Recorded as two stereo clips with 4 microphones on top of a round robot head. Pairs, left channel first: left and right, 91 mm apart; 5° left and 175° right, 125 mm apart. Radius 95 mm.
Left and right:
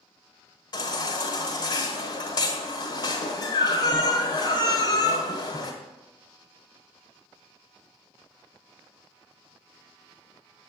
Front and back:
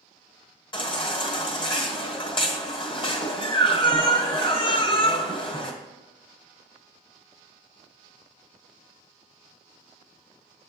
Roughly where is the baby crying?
Ahead left.